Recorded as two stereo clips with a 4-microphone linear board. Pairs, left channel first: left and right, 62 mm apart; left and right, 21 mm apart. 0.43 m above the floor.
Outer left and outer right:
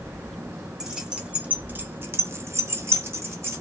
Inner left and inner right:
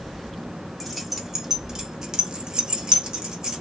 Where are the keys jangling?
10° right (ahead or behind), 0.9 m; by 3.6 s 40° right (ahead or behind), 1.0 m.